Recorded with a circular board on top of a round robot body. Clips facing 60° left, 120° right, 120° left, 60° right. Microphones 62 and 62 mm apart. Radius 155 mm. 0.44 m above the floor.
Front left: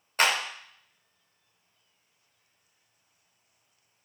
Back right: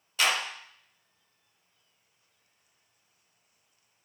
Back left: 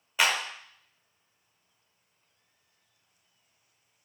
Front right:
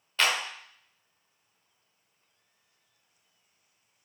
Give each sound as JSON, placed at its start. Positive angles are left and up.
{"t": 0.2, "sound": "a clap", "azimuth_deg": 45, "distance_m": 0.8}